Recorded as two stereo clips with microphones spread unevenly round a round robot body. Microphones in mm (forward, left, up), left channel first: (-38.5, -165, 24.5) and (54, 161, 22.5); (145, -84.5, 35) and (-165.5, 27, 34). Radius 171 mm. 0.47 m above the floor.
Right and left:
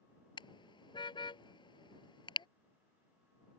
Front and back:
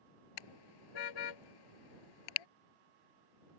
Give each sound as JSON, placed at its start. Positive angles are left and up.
{"t": 0.4, "sound": "a car horn", "azimuth_deg": -30}